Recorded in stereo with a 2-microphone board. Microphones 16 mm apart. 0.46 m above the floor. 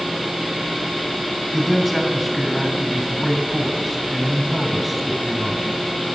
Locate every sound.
1.5 s a man speaking: 15° right (ahead or behind), 3 m